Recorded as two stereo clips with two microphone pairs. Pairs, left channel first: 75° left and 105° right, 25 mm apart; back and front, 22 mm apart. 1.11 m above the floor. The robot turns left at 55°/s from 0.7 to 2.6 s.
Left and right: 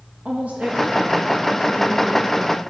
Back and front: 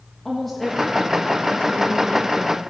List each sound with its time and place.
0.2 s a woman speaking: 100° right, 1.6 m; by 2.6 s 155° left, 1.6 m